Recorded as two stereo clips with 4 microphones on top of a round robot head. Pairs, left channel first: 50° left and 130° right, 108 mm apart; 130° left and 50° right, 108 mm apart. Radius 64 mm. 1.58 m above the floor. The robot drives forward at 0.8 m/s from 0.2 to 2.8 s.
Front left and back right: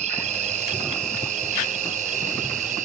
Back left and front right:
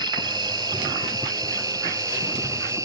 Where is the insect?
105° right; by 2.9 s 115° right.